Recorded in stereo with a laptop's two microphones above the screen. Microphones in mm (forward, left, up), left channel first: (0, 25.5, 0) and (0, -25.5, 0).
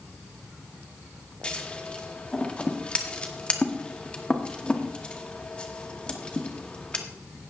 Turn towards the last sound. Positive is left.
turn(degrees=20)  # may be behind; listen again after turning